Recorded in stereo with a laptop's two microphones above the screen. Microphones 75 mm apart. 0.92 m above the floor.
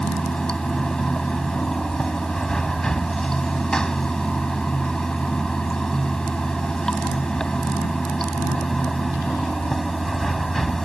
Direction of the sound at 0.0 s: 10° left (ahead or behind).